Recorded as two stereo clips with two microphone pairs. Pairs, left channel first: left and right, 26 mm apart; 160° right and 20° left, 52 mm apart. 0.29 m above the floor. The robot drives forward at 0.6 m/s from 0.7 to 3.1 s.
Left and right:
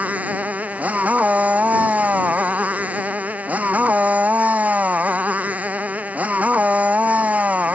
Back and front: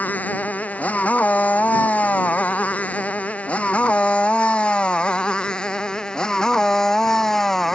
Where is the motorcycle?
100° right; by 7.8 s 80° right.